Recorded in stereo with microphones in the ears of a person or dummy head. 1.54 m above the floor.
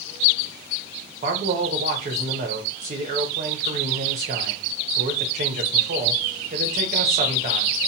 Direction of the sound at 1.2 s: 35° right (ahead or behind).